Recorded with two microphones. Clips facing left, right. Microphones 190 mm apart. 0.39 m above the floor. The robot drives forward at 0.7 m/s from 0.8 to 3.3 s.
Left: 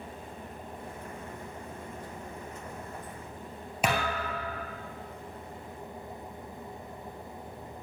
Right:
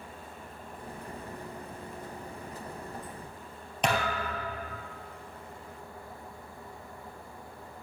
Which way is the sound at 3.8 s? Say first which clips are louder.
Even; 5° left (ahead or behind).